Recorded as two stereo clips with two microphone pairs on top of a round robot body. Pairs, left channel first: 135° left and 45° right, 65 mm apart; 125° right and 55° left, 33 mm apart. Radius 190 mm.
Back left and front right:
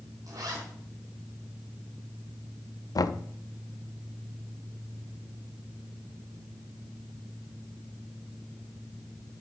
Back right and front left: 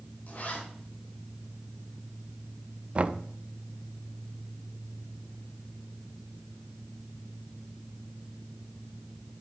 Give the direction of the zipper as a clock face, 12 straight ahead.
3 o'clock.